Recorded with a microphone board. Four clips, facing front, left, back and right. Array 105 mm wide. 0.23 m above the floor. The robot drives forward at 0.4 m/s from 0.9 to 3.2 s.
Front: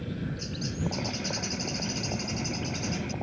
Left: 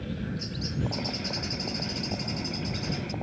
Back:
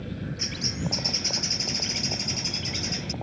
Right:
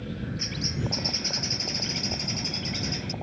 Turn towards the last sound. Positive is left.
turn(degrees=-150)